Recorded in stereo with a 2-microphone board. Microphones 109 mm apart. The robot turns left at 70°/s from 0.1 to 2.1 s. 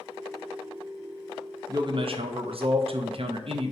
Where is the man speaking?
35° right (ahead or behind), 0.5 m; by 3.7 s 60° right (ahead or behind), 0.5 m.